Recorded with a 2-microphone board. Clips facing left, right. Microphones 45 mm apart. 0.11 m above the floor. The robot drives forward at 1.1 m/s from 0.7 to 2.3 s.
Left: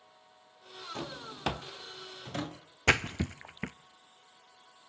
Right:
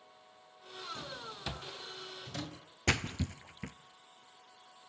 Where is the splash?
40° left (ahead or behind), 0.8 m.